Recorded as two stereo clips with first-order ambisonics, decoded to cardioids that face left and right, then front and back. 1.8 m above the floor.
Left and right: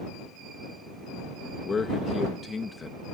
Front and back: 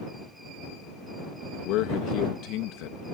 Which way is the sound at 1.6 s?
20° left.